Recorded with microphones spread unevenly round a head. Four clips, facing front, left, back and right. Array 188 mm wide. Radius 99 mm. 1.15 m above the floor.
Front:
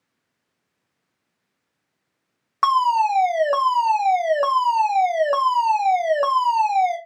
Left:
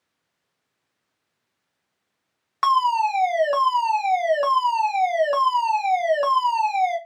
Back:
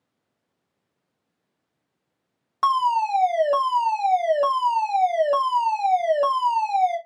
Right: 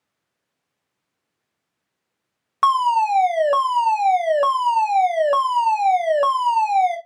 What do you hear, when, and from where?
2.6 s a fire alarm: 105° right, 1.0 m